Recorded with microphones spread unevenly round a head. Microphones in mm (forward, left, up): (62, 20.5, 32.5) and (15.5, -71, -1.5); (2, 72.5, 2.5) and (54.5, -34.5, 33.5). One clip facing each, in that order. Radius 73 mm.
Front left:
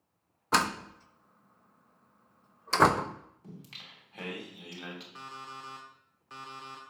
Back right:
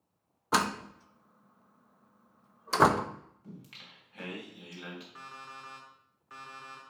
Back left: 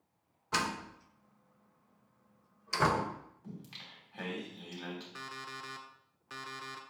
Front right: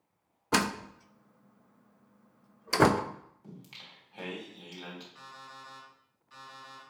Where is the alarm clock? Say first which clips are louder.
Front left 3 dB, back left 3 dB; 125° left, 1.1 m.